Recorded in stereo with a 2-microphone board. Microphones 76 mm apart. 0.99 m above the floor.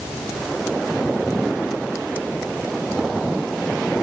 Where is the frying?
No frying in this recording.